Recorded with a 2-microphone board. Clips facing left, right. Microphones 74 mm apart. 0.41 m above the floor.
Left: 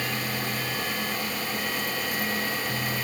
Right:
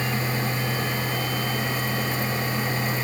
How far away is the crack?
I don't hear a crack.